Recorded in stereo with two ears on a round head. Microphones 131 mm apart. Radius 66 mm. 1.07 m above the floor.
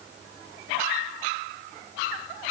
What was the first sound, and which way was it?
Only background noise.